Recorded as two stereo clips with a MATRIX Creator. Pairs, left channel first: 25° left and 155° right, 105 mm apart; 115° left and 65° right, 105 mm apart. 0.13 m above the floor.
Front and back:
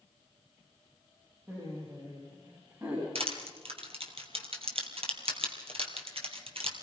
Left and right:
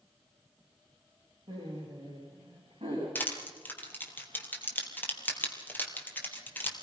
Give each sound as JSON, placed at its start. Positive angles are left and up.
{"t": 1.5, "sound": "laughter", "azimuth_deg": -105, "distance_m": 8.0}
{"t": 3.1, "sound": "crushing", "azimuth_deg": -175, "distance_m": 3.0}